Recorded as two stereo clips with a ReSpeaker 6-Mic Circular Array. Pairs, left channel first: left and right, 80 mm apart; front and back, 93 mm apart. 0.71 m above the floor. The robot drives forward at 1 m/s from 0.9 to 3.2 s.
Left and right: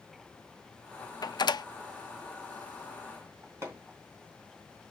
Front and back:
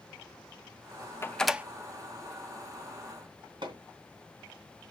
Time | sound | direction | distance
1.2 | a door slam | 60° left | 0.6 m
3.6 | hammering | 145° right | 3 m